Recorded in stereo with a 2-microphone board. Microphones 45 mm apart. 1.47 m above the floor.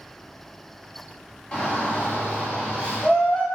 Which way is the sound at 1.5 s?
25° left (ahead or behind).